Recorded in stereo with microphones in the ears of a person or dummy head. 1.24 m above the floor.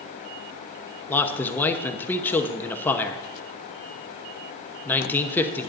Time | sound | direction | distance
1.1 | a man speaking | 5° left (ahead or behind) | 0.7 m